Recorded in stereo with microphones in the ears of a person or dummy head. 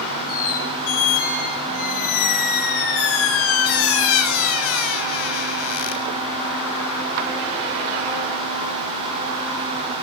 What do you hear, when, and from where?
0.3 s a squeak: 85° left, 7 m